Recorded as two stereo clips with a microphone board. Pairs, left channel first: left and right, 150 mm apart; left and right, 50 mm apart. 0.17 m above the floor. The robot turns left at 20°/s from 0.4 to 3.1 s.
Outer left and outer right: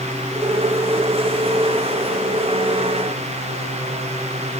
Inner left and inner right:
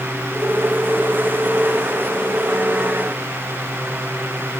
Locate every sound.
Only background noise.